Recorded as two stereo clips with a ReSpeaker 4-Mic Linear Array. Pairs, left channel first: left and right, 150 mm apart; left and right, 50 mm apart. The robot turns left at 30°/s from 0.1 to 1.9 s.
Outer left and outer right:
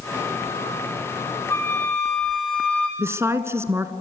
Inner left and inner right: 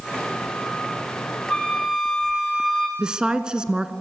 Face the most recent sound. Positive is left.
turn(degrees=-20)  # may be behind; listen again after turning